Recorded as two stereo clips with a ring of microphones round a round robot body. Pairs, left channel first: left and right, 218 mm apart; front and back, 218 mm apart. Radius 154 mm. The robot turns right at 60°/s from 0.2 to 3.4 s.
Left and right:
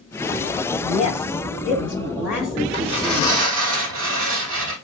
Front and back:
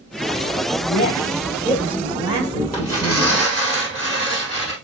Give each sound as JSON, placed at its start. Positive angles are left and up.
{"t": 0.8, "sound": "a woman speaking", "azimuth_deg": 35, "distance_m": 1.7}
{"t": 2.7, "sound": "tearing paper", "azimuth_deg": -150, "distance_m": 2.5}